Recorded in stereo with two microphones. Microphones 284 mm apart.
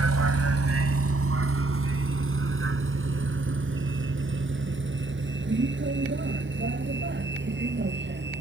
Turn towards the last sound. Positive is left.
turn(degrees=-35)  # may be behind; listen again after turning